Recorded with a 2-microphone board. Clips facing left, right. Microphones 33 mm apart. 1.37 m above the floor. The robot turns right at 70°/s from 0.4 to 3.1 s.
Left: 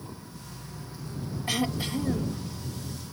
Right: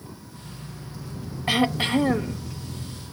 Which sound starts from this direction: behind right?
Throat clearing, at 1.5 s.